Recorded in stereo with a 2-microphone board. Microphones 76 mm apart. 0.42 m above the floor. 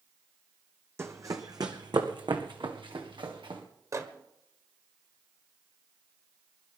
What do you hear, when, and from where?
1.0 s running footsteps: 35° right (ahead or behind), 1.3 m; by 3.6 s 85° right, 3 m
3.9 s a microwave: 45° right (ahead or behind), 1.3 m